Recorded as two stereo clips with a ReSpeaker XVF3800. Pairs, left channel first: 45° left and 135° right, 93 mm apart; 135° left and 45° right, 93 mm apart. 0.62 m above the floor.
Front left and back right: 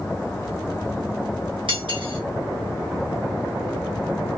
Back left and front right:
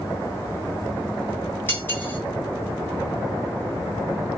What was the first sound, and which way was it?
Cutlery clinking, 160° right.